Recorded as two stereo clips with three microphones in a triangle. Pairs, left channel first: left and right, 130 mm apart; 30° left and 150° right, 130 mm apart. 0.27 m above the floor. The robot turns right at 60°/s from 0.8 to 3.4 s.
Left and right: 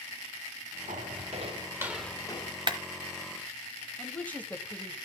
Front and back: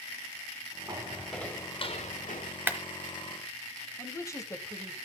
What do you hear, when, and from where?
0.9 s footsteps: 95° right, 2.5 m; by 2.5 s 50° left, 1.6 m
2.7 s a clap: 85° right, 1.2 m; by 2.8 s 80° right, 1.2 m
4.0 s a woman speaking: 30° left, 1.3 m